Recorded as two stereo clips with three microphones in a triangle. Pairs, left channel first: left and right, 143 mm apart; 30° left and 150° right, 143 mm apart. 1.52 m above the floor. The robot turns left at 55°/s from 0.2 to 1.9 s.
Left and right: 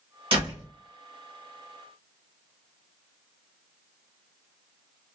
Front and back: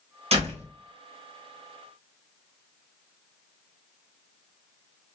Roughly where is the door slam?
Behind right.